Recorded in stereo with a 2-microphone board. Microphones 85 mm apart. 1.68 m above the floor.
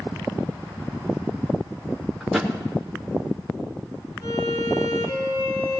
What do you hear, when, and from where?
2.2 s a thud: centre (ahead or behind), 1.8 m
4.2 s a violin: 55° left (ahead or behind), 3 m